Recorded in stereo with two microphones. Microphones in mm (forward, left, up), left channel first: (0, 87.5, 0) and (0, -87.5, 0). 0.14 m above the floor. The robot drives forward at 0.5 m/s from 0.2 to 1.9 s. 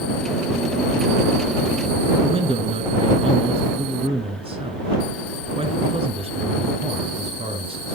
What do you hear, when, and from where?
2.2 s a man speaking: 35° right (ahead or behind), 1.7 m